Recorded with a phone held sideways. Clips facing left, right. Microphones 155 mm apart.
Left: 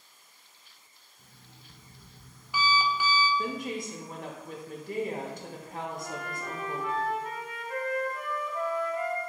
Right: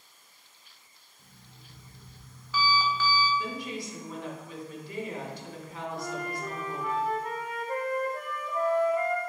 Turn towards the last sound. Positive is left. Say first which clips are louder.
# right 3 dB
turn(degrees=-45)  # may be behind; listen again after turning